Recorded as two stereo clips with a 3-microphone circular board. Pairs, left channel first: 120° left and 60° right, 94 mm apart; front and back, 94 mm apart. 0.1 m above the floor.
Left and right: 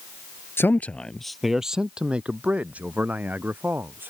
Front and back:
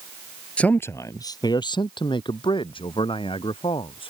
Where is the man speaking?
70° left; by 4.1 s 10° left.